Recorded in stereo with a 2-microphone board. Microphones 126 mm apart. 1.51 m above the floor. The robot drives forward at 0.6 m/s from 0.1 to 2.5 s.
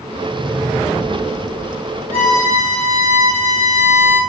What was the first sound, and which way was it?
A violin, 15° left (ahead or behind).